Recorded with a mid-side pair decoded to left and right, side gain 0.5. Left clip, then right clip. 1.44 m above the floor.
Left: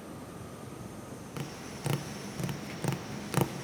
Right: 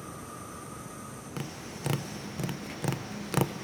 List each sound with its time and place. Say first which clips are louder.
1.4 s tapping: right 1 dB; 10° right, 0.7 m